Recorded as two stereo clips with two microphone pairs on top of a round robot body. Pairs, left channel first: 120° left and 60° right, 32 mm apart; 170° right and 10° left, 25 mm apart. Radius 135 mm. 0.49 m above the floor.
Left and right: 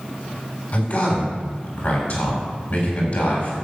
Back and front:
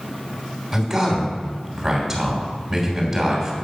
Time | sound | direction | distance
0.7 | a man speaking | 90° left | 3 m